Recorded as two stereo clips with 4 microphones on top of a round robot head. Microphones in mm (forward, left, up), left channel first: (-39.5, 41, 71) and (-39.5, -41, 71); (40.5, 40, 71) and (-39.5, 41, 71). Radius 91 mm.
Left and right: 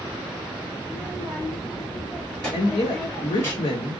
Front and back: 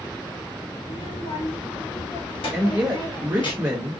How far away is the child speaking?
About 2.5 m.